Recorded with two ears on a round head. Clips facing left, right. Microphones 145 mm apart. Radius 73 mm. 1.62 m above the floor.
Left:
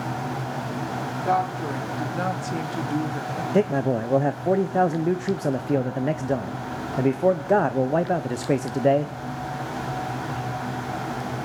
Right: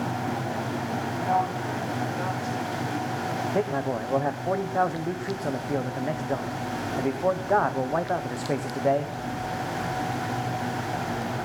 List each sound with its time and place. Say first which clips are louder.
1.2 s a woman speaking: left 3 dB; 65° left (ahead or behind), 3 m
3.5 s a man speaking: left 7 dB; 30° left (ahead or behind), 0.7 m